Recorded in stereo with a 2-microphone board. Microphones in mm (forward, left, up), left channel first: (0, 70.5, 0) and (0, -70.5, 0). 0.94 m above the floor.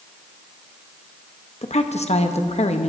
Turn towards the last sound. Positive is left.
turn(degrees=50)  # may be behind; listen again after turning